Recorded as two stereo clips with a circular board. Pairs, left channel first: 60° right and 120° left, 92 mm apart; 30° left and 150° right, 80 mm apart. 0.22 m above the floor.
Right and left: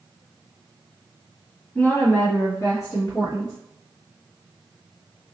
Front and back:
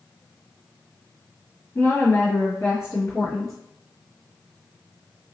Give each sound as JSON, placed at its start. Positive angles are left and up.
{"t": 1.8, "sound": "a woman speaking", "azimuth_deg": 0, "distance_m": 1.1}